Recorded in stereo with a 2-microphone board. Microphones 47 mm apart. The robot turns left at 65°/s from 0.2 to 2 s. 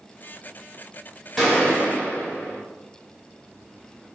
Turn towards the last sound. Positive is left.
turn(degrees=125)